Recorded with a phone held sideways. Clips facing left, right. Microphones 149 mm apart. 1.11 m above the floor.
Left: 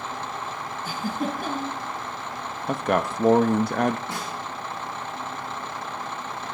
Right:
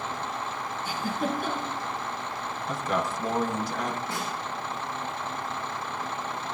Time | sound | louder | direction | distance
0.8 | a giggle | left 1 dB | 50° left (ahead or behind) | 8 m
2.7 | a man speaking | left 6 dB | 70° left (ahead or behind) | 0.9 m
4.1 | a snare drum | even | 25° left (ahead or behind) | 10 m